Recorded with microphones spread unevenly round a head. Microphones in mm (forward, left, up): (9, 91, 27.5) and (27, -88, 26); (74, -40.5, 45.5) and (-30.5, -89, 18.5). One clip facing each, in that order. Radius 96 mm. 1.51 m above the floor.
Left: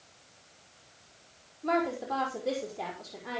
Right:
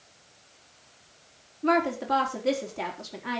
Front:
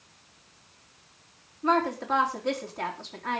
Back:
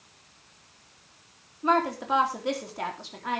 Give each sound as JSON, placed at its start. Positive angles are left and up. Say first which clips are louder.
{"t": 1.6, "sound": "a woman speaking", "louder": "right 4 dB, even", "azimuth_deg": -75, "distance_m": 4.0}